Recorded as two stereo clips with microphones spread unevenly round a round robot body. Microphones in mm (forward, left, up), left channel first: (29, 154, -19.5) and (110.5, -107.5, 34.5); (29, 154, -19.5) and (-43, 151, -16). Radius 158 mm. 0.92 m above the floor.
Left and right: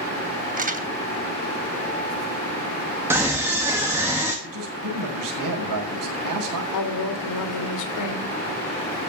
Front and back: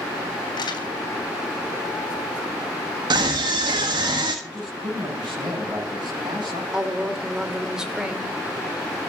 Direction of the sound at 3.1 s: 160° right.